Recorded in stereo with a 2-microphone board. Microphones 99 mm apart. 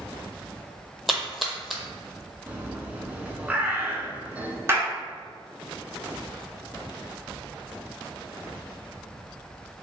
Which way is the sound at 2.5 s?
15° right (ahead or behind).